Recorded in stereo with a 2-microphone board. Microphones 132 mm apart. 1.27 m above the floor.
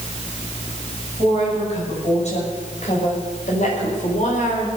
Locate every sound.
1.2 s a woman speaking: 55° left (ahead or behind), 8 m; by 4.7 s 75° left (ahead or behind), 4 m